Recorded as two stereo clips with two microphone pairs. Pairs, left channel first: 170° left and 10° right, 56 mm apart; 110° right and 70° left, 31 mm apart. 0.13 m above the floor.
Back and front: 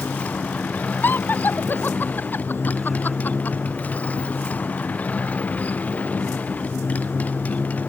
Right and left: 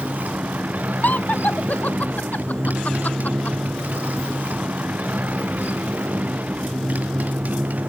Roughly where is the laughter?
Behind right.